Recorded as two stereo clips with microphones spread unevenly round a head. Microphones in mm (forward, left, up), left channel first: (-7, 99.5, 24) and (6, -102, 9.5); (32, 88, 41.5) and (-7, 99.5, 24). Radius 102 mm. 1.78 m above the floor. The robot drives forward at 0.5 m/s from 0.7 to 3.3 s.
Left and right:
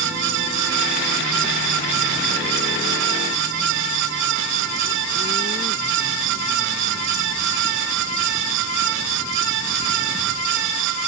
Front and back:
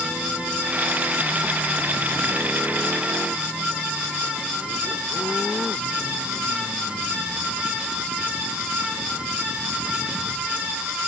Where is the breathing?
No breathing in this recording.